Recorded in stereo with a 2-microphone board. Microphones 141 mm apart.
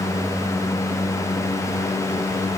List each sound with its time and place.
Only background noise.